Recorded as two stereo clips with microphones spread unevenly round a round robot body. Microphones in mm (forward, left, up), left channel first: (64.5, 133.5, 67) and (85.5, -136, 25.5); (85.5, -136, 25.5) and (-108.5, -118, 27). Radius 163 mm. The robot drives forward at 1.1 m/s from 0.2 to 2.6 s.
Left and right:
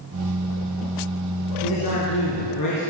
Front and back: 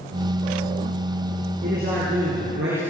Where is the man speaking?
110° left, 4 m; by 2.8 s 125° left, 4.5 m.